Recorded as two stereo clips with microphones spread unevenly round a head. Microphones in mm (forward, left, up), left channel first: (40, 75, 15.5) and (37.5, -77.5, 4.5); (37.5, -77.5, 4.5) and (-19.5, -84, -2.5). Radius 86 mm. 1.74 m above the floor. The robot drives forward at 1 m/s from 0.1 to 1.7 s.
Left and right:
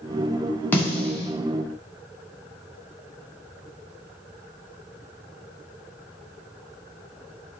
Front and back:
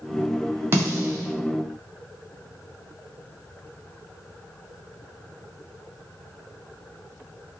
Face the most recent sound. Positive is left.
turn(degrees=175)